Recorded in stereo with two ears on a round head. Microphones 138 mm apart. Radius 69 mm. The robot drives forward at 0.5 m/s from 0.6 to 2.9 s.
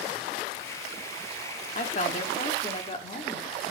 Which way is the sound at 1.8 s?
45° left (ahead or behind).